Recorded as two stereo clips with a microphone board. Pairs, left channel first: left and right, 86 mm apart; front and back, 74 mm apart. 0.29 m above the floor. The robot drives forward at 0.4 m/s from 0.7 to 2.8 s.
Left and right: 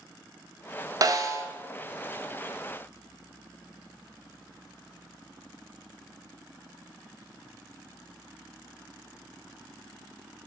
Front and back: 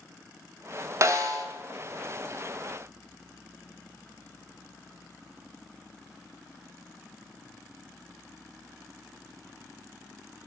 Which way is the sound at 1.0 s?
135° right.